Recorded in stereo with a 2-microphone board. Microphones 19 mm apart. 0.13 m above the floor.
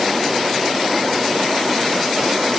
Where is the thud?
No thud in this recording.